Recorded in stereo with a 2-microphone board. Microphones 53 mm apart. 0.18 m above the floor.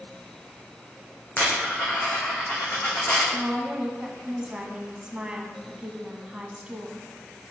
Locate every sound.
1.4 s a dropped coin: 25° left (ahead or behind), 2.5 m
3.3 s a woman speaking: 20° right (ahead or behind), 1.1 m